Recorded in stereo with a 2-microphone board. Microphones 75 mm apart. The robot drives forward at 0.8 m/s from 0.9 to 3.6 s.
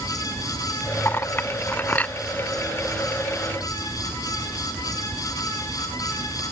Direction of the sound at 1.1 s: 35° left (ahead or behind).